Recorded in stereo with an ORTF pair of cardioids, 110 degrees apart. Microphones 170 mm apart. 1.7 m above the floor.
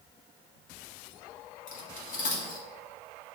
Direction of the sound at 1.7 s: 55° left.